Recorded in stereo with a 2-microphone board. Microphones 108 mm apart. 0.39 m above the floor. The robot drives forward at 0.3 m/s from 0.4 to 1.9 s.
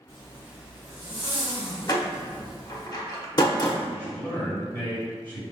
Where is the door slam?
40° left (ahead or behind), 0.6 m.